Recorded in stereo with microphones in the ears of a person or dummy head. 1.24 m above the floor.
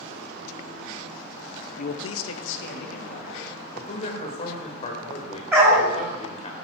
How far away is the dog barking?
About 2.5 m.